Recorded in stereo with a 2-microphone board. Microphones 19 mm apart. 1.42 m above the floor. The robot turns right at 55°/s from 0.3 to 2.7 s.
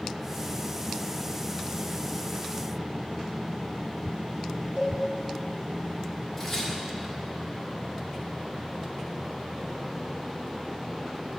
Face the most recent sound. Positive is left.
turn(degrees=25)  # may be behind; listen again after turning